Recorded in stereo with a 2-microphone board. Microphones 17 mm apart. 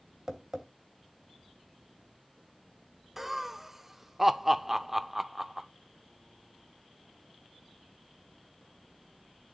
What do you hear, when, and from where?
0.3 s tapping: 35° right (ahead or behind), 2.5 m
3.2 s laughter: 10° right (ahead or behind), 0.8 m